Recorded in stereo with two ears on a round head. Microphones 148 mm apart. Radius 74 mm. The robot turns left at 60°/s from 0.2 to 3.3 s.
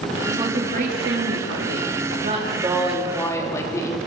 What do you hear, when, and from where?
0.2 s a woman speaking: 15° right, 3 m; by 4.0 s 160° left, 3 m